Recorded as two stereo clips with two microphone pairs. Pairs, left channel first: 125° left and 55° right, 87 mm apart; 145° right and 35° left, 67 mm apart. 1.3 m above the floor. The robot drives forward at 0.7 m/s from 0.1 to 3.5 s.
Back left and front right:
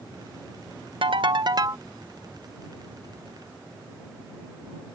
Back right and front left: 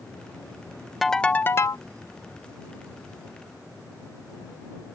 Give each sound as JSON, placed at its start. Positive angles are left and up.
{"t": 1.0, "sound": "a ringtone", "azimuth_deg": -60}